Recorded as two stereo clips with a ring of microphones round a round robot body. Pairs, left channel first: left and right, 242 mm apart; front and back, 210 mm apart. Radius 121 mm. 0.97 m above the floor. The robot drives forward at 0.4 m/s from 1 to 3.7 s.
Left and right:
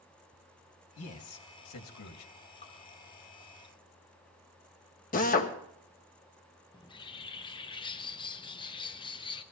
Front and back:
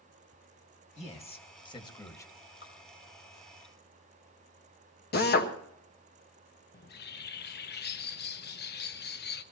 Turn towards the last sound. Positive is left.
turn(degrees=25)